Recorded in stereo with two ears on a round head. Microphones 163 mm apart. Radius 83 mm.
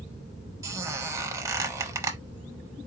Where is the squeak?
15° right (ahead or behind), 0.8 m.